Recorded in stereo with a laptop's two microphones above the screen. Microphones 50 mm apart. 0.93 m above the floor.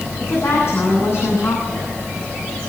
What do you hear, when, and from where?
0.2 s a woman speaking: 55° left (ahead or behind), 10 m